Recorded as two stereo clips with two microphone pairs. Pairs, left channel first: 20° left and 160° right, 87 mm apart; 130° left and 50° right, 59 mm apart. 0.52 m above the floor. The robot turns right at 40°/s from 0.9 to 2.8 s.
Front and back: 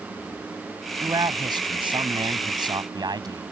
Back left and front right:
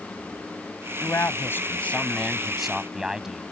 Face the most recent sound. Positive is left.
turn(degrees=-130)